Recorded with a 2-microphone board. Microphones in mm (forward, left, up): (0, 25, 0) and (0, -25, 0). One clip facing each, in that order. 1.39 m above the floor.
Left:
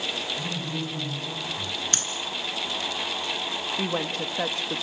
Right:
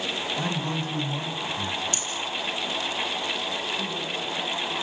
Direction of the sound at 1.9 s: 65° left (ahead or behind).